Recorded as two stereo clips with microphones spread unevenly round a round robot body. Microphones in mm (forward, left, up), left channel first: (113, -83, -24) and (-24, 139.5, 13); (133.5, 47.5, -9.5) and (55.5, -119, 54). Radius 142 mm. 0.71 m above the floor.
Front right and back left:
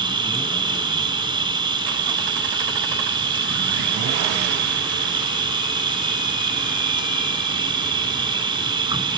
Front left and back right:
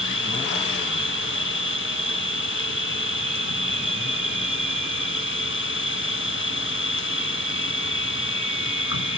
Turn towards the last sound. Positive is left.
turn(degrees=50)